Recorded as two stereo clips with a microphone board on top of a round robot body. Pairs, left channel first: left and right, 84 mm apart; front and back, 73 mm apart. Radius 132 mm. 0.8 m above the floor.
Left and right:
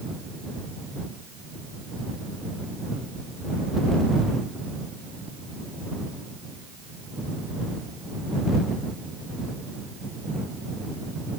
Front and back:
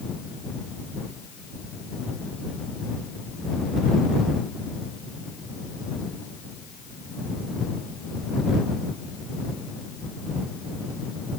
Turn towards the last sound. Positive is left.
No sound to turn to.